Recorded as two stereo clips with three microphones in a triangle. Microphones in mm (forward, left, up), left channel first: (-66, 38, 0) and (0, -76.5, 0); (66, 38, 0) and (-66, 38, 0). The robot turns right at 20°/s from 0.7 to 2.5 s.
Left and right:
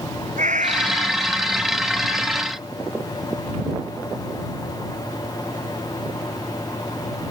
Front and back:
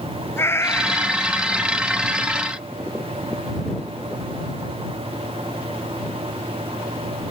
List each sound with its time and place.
0.4 s a cat meowing: 70° right; by 1.7 s 50° right